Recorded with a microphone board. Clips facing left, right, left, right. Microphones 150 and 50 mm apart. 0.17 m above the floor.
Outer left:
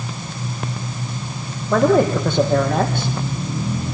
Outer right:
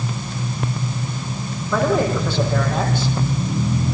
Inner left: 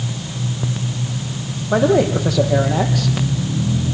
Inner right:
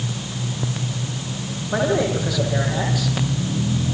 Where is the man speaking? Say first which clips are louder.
Outer left 4 dB, inner left 5 dB; 50° left (ahead or behind), 6 m; by 3.1 s 60° left (ahead or behind), 5.5 m.